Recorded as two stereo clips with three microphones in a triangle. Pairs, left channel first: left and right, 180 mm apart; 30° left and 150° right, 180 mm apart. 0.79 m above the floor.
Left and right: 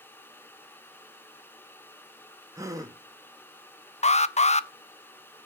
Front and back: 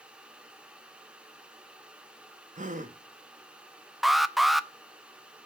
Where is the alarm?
120° left, 0.6 m.